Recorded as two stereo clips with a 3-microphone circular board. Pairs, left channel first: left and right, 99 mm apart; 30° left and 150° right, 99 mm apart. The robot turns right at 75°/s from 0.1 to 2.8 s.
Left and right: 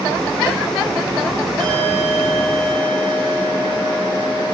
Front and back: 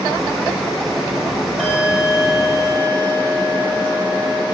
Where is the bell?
55° right, 6 m; by 4.5 s 35° left, 6 m.